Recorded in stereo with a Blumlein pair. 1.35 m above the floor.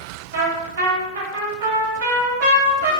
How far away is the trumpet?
About 1.9 m.